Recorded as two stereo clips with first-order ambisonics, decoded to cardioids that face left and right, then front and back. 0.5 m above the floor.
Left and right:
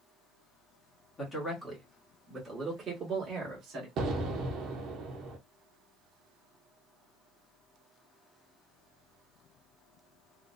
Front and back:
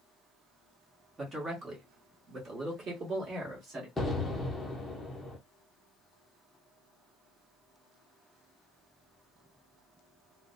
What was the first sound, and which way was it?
A man speaking, 135° left.